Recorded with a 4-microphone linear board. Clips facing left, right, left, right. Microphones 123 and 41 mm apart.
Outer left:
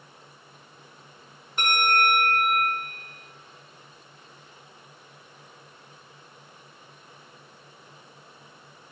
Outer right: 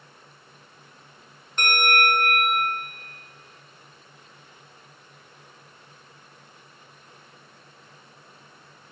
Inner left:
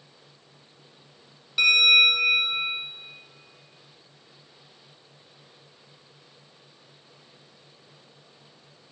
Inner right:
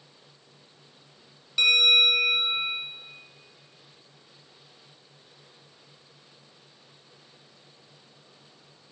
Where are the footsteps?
I don't hear footsteps.